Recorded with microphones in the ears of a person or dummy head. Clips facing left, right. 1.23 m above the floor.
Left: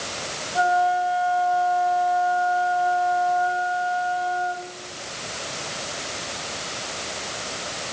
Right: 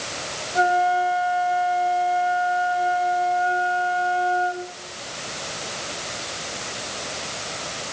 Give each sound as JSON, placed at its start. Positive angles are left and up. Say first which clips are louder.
{"t": 0.6, "sound": "a flute", "louder": "right 1 dB", "side_deg": -30, "distance_m": 2.0}